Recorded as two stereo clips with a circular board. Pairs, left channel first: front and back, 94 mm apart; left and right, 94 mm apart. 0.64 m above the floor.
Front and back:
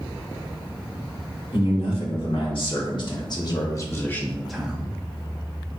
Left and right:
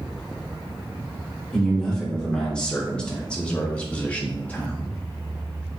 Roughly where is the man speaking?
Ahead.